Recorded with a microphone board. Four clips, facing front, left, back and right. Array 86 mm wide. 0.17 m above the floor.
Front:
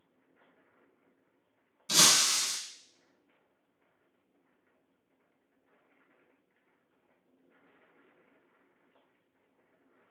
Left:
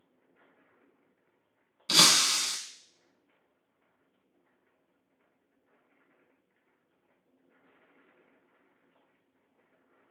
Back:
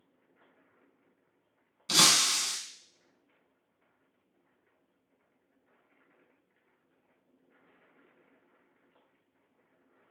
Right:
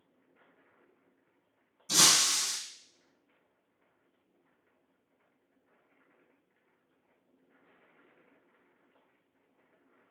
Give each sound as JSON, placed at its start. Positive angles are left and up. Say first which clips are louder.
{"t": 1.9, "sound": "breaking glass", "louder": "left 3 dB, back 1 dB", "azimuth_deg": 110, "distance_m": 0.5}